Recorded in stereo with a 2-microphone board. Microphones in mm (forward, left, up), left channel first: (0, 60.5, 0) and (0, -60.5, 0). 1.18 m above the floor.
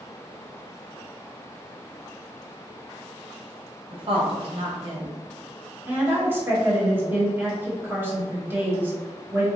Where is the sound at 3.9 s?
50° right (ahead or behind), 0.8 m.